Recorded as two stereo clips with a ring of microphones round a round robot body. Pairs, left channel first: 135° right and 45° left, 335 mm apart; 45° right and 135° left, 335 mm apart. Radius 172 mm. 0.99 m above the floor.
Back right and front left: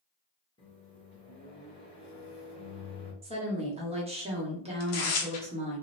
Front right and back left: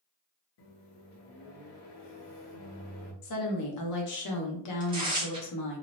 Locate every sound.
0.6 s a microwave: 60° right, 0.9 m
3.2 s a woman speaking: 25° right, 0.9 m
4.8 s tearing paper: 150° right, 0.7 m